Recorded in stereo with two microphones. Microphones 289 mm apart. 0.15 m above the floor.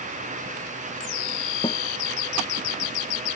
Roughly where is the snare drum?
Centre.